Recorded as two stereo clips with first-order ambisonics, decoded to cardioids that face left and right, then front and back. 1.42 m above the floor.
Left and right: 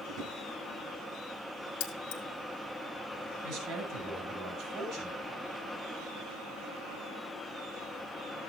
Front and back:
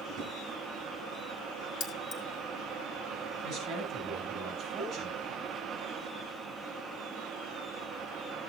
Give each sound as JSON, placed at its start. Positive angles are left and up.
{"t": 0.1, "sound": "a drawer", "azimuth_deg": -130, "distance_m": 5.5}
{"t": 1.8, "sound": "keys jangling", "azimuth_deg": 55, "distance_m": 1.6}
{"t": 3.4, "sound": "a man speaking", "azimuth_deg": -120, "distance_m": 5.5}